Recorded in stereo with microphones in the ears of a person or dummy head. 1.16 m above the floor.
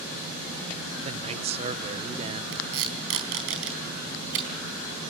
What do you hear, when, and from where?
1.0 s a man speaking: 30° right (ahead or behind), 0.7 m
2.5 s tape being pulled: 75° right (ahead or behind), 4 m